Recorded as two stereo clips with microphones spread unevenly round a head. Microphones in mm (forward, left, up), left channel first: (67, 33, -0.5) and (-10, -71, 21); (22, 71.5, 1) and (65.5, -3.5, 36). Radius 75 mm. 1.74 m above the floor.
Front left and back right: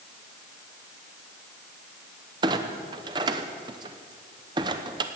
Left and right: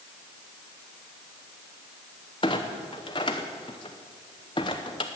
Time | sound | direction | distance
2.4 | a clunk | 170° right | 0.7 m